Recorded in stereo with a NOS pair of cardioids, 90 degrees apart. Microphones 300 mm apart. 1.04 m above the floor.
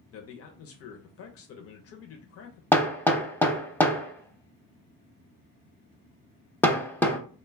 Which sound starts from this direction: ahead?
Hammering, at 2.7 s.